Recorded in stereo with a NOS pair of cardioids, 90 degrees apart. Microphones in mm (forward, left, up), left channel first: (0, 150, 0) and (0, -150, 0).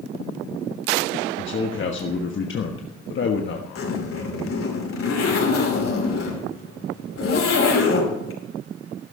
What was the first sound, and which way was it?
A man speaking, 40° left.